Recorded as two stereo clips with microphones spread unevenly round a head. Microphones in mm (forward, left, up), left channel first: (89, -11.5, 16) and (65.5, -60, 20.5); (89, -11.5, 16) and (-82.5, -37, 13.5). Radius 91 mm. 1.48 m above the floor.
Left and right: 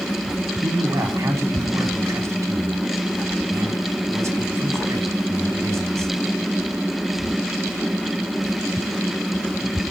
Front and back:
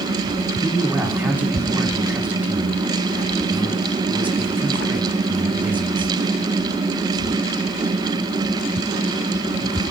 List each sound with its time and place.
0.6 s a man speaking: 90° right, 4.5 m